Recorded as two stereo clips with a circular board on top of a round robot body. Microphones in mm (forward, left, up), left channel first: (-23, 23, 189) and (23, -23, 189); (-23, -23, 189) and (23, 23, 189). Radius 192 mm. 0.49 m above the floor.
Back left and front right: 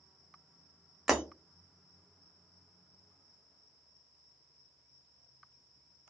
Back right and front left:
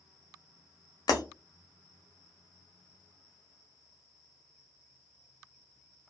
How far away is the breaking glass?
About 0.7 m.